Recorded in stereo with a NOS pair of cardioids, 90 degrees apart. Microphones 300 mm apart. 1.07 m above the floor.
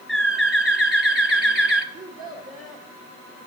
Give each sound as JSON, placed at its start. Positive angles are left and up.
{"t": 0.1, "sound": "a bird", "azimuth_deg": 0, "distance_m": 1.4}
{"t": 1.9, "sound": "a child speaking", "azimuth_deg": -30, "distance_m": 1.6}